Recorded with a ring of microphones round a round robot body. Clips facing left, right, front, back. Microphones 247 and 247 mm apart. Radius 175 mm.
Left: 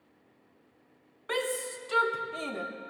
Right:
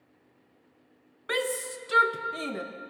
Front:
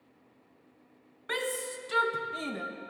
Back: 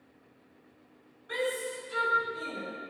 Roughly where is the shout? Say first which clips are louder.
Right 2 dB, back 2 dB; ahead.